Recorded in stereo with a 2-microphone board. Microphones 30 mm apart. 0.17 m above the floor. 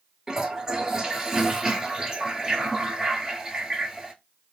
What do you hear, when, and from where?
0.3 s a toilet flushing: 25° right (ahead or behind), 0.7 m